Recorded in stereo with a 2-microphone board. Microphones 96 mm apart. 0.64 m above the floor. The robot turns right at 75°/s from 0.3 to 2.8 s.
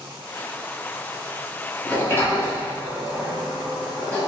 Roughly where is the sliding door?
Left.